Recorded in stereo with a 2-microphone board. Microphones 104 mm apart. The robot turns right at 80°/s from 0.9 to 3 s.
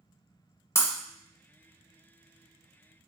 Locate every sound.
0.8 s breaking glass: 25° left (ahead or behind), 0.8 m